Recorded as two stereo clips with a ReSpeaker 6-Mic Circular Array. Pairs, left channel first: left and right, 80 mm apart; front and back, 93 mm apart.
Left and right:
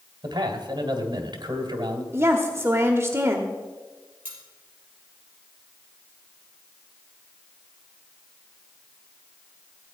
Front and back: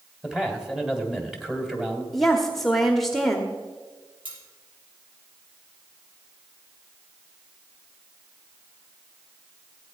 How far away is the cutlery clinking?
About 5.5 m.